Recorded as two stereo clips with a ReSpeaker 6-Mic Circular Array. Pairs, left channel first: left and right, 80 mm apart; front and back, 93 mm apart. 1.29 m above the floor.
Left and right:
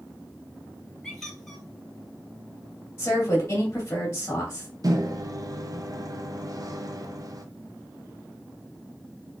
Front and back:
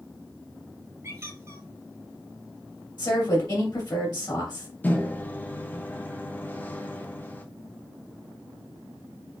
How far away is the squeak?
About 1.4 m.